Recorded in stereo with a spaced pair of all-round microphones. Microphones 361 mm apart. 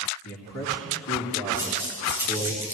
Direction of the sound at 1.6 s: 5° right (ahead or behind).